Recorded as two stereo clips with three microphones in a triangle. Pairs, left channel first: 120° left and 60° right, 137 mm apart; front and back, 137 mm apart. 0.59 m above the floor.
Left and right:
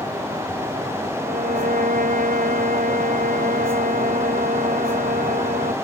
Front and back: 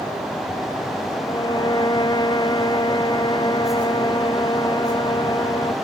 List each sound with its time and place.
1.2 s a violin: 60° right